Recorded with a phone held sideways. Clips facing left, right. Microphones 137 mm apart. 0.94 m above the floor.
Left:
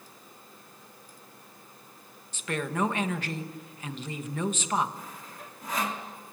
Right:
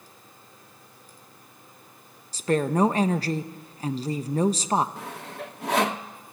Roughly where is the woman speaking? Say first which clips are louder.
Right 8 dB; right.